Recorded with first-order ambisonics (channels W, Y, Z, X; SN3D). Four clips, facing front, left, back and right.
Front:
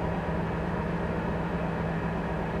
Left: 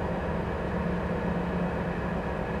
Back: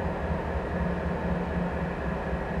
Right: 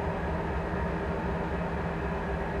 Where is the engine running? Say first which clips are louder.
Left 1 dB, even; 60° left, 1.2 m.